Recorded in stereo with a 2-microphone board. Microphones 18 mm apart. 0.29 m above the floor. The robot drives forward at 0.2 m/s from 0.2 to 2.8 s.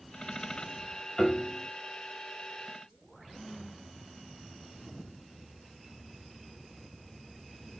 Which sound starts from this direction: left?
A piano, at 1.2 s.